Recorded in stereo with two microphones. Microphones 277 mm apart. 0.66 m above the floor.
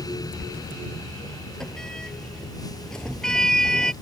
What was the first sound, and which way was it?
A sliding door, centre (ahead or behind).